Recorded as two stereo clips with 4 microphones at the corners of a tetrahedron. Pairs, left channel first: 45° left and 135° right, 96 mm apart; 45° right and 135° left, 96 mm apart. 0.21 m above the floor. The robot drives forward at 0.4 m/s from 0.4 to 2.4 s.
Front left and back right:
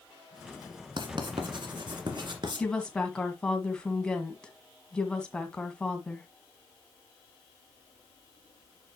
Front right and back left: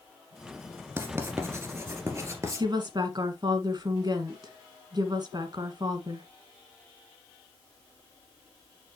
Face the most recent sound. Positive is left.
turn(degrees=125)